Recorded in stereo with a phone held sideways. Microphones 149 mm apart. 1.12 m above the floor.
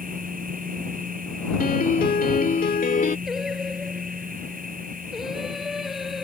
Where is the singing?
Centre (ahead or behind).